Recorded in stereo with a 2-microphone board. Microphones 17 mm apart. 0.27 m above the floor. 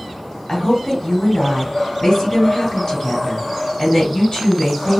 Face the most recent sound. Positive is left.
turn(degrees=50)  # may be behind; listen again after turning